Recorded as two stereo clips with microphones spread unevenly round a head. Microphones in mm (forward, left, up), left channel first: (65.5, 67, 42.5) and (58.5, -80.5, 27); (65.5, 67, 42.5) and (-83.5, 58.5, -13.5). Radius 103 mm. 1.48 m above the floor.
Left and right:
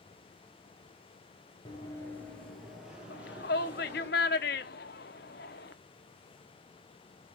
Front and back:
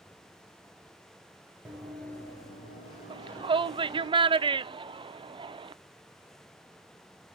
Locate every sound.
1.6 s running footsteps: 75° left, 1.6 m; by 4.1 s 15° right, 4 m
3.1 s a shout: 115° left, 0.6 m